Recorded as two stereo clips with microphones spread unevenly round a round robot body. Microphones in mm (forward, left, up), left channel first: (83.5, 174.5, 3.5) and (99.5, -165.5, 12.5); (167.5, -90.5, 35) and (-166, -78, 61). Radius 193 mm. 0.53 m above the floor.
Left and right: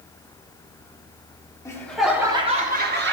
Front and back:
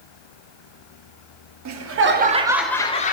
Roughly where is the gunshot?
No gunshot in this recording.